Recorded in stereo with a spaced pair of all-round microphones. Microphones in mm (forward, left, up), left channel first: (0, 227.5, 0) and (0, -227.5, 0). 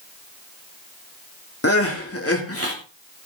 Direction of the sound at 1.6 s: 30° left (ahead or behind).